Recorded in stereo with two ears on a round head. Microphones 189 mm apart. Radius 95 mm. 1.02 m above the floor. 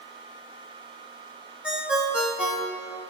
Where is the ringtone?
5° right (ahead or behind), 0.9 m.